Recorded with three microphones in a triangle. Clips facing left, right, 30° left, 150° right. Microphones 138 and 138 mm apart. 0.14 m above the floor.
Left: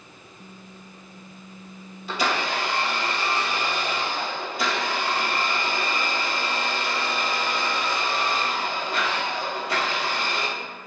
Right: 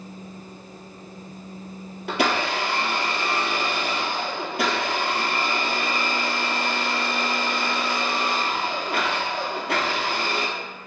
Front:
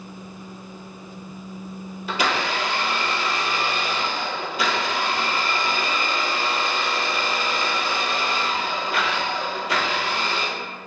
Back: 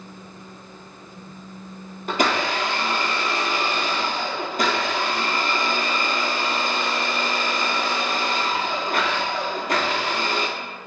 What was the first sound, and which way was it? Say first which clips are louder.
A blender: right 2 dB, back 2 dB; 110° right.